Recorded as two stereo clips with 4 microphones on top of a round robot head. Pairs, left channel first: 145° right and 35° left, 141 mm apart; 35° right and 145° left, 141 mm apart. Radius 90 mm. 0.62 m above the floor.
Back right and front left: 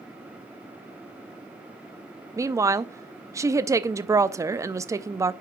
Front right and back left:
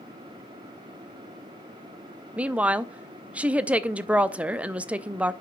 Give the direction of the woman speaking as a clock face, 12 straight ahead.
9 o'clock.